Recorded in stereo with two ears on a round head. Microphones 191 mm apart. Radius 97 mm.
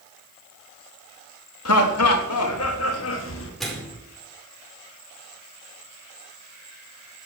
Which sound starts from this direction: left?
Laughter, at 1.6 s.